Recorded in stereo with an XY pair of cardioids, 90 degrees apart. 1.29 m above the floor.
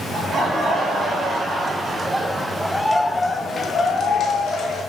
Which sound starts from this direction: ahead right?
Laughter, at 0.1 s.